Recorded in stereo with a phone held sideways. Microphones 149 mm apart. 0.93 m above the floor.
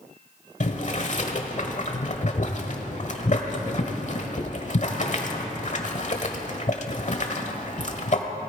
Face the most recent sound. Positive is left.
turn(degrees=50)  # may be behind; listen again after turning